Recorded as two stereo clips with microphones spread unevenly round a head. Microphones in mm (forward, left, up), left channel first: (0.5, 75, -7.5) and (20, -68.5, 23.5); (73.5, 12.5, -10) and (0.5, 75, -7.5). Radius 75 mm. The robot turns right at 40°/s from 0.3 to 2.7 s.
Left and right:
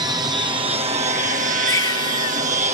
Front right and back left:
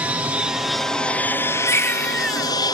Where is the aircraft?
145° right; by 2.7 s 50° right.